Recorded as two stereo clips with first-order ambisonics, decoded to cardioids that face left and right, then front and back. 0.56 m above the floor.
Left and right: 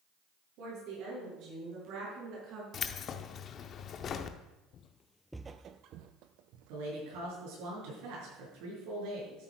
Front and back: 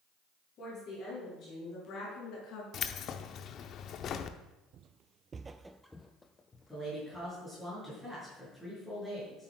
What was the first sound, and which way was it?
A woman speaking, 55° right.